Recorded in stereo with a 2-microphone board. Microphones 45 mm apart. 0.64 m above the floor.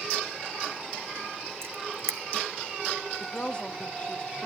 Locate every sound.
1.6 s a camera shutter: 70° right (ahead or behind), 0.9 m
3.2 s a woman speaking: 25° left (ahead or behind), 0.9 m